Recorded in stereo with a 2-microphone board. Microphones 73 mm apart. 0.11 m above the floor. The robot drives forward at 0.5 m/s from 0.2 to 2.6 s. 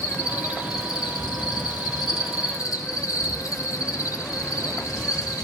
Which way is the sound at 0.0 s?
45° left (ahead or behind).